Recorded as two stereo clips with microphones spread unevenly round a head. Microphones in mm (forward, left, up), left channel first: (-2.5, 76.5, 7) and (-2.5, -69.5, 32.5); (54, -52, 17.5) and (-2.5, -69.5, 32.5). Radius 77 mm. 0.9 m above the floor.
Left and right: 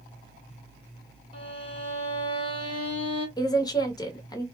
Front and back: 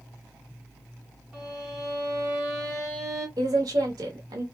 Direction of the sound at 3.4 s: 150° left.